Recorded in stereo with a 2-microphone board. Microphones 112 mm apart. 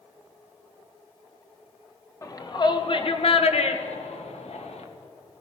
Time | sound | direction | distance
2.2 | a shout | 30° left (ahead or behind) | 1.6 m